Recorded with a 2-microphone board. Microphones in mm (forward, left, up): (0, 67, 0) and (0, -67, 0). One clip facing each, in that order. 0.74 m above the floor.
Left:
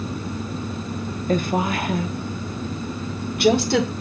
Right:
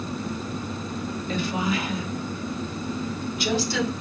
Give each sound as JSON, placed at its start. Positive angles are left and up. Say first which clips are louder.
{"t": 1.3, "sound": "a woman speaking", "louder": "left 5 dB", "side_deg": 50, "distance_m": 1.2}